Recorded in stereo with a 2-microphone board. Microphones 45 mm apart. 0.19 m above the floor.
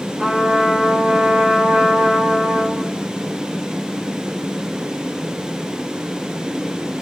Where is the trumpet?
30° right (ahead or behind), 1.9 m.